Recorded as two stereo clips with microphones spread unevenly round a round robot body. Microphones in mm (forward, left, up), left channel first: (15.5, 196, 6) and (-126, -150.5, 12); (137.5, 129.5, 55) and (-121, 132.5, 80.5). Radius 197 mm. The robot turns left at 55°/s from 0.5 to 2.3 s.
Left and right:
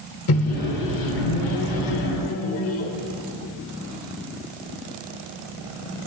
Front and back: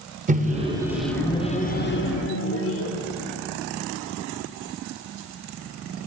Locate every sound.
0.3 s a microwave: 115° left, 1.1 m; by 2.9 s 15° left, 1.1 m